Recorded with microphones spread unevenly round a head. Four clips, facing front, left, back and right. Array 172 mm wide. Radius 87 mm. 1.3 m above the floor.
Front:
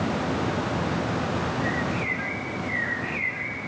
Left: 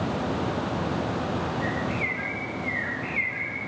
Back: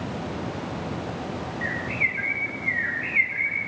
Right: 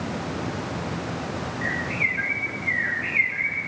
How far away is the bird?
About 2.5 m.